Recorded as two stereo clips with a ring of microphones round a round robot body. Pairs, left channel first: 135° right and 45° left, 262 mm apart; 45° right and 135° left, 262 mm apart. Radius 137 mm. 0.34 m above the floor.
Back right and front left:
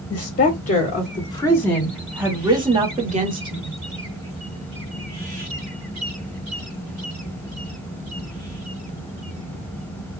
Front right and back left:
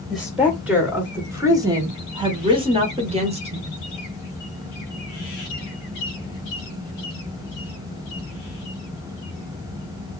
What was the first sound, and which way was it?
A woman speaking, 135° right.